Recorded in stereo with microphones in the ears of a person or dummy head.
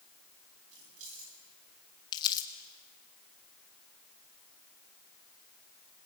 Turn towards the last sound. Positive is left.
turn(degrees=25)  # may be behind; listen again after turning